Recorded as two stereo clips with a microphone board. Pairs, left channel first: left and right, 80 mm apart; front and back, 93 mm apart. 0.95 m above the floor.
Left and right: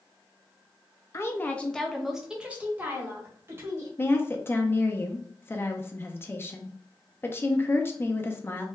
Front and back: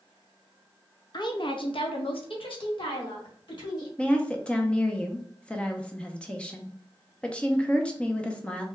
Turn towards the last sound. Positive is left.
turn(degrees=65)